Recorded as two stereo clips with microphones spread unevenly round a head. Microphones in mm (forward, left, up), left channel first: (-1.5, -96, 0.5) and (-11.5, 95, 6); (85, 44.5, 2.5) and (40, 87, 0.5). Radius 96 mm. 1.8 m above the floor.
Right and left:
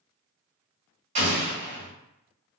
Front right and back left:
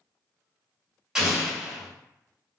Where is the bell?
I don't hear a bell.